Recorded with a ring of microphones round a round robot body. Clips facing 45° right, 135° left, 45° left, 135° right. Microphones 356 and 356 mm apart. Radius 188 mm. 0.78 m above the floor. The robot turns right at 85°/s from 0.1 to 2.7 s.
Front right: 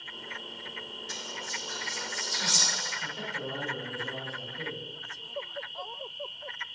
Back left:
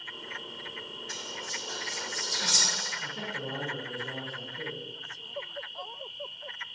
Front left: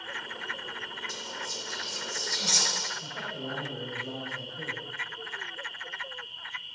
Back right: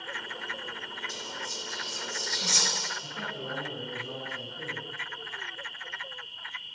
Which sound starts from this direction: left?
A man speaking, at 3.0 s.